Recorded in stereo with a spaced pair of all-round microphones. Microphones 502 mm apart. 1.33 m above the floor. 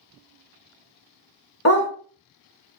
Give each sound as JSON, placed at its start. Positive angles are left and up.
{"t": 1.6, "sound": "a dog barking", "side_deg": 30, "distance_m": 1.2}